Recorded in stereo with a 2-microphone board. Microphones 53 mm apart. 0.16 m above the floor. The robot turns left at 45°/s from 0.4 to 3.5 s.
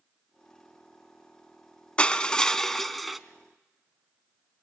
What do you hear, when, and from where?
2.0 s crushing: 20° left (ahead or behind), 0.8 m; by 3.2 s 5° right (ahead or behind), 0.8 m